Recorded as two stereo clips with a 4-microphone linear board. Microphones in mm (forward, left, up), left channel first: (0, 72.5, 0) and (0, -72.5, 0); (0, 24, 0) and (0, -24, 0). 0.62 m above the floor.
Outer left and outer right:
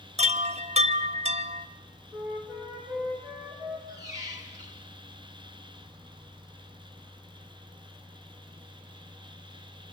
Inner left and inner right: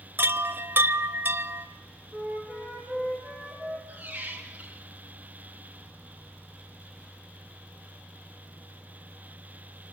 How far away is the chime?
About 1.0 m.